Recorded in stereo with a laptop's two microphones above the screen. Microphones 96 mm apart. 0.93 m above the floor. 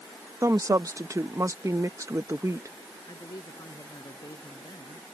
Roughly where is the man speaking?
Left.